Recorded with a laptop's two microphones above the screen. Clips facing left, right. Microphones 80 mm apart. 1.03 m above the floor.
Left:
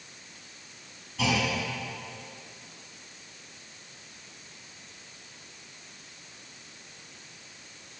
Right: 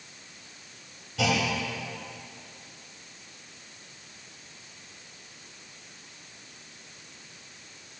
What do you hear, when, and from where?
1.2 s a clunk: 85° right, 3 m